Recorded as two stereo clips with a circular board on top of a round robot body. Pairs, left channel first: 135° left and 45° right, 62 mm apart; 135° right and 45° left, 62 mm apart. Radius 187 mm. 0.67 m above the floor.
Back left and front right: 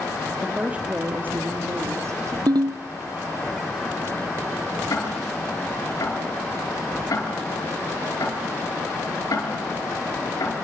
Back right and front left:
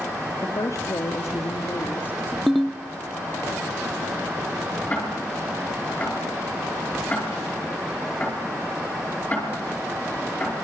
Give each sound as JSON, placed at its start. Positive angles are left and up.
{"t": 0.4, "sound": "a woman speaking", "azimuth_deg": -125, "distance_m": 1.9}
{"t": 2.5, "sound": "a ringtone", "azimuth_deg": -45, "distance_m": 0.6}
{"t": 4.9, "sound": "ticking", "azimuth_deg": 160, "distance_m": 7.5}